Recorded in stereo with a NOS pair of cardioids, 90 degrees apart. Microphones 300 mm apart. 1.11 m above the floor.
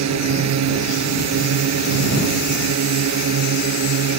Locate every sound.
0.0 s a drone: 65° right